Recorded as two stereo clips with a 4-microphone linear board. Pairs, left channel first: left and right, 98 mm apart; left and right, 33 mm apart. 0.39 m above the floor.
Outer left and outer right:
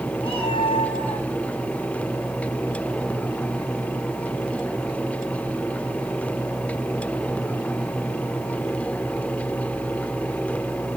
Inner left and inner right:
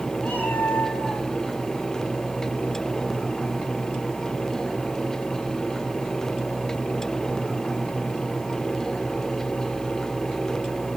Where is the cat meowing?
65° left (ahead or behind), 8 m.